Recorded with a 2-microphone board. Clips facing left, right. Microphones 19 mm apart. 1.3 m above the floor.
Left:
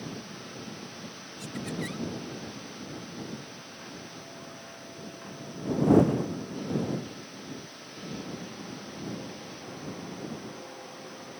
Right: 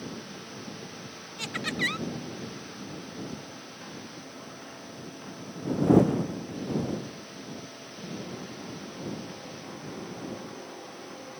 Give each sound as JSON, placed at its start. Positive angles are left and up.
{"t": 1.4, "sound": "laughter", "side_deg": -50}